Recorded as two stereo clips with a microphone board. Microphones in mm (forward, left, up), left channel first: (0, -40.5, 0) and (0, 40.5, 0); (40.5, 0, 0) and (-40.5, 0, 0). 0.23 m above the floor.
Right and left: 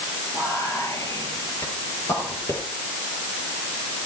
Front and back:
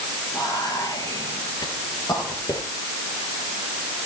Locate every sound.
0.3 s whispering: 45° right, 4.5 m